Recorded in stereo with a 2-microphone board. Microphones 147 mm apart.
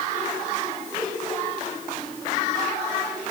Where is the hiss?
I don't hear a hiss.